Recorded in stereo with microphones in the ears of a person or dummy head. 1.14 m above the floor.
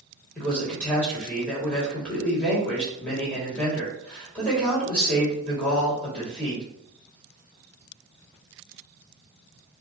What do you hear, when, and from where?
0.3 s a man speaking: 5° left (ahead or behind), 2.5 m